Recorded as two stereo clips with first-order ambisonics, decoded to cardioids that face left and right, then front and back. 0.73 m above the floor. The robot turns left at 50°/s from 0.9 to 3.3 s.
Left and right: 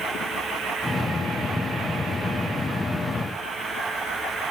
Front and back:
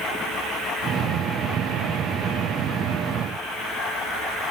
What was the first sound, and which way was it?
Only background noise.